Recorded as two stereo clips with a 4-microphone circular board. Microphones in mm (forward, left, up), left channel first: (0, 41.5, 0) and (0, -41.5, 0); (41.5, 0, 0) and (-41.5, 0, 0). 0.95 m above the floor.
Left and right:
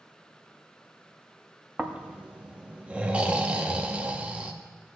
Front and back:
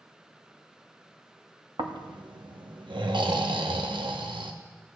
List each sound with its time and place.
1.8 s snoring: 165° right, 0.7 m